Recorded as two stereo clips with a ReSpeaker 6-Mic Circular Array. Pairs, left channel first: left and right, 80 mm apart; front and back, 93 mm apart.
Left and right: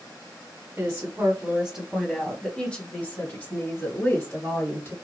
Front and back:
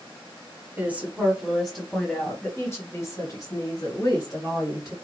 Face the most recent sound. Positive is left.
turn(degrees=40)